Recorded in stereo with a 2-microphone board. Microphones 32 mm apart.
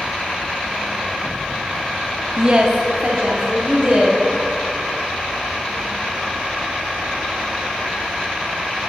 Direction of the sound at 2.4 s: 30° right (ahead or behind).